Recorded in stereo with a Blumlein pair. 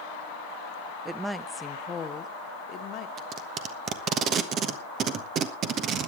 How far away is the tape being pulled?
About 1.2 m.